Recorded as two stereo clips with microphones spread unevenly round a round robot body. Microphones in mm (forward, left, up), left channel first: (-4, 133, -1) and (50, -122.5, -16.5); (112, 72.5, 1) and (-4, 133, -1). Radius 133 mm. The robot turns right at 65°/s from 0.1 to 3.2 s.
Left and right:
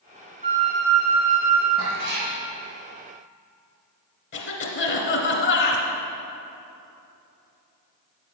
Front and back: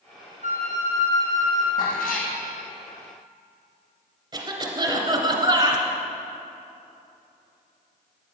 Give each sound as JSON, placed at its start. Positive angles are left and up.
{"t": 0.4, "sound": "a flute", "azimuth_deg": 160, "distance_m": 3.0}
{"t": 1.8, "sound": "a cat meowing", "azimuth_deg": -50, "distance_m": 2.5}
{"t": 4.3, "sound": "a cough", "azimuth_deg": 120, "distance_m": 1.9}